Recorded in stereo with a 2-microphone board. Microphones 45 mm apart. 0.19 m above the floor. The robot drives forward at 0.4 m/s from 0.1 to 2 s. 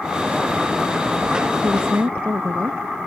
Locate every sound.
1.6 s a woman speaking: 70° right (ahead or behind); by 2.8 s 65° right (ahead or behind)